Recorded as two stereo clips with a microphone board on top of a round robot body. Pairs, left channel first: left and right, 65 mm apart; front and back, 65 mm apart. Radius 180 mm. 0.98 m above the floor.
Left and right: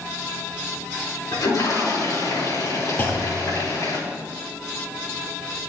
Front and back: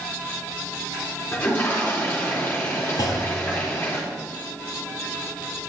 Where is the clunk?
30° left, 0.6 m.